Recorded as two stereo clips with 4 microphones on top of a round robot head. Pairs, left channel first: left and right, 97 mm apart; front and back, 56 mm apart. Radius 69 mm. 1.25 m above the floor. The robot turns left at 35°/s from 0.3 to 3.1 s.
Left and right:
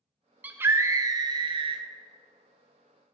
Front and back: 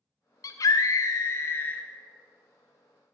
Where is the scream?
15° right, 0.7 m; by 1.8 s 65° right, 0.7 m.